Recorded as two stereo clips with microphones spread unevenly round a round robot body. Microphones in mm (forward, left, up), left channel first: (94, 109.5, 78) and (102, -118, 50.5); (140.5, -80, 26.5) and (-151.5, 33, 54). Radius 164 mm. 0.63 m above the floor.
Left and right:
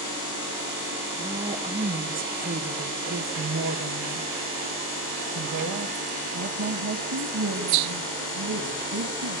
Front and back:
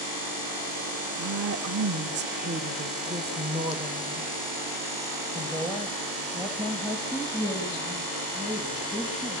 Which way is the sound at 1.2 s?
160° right.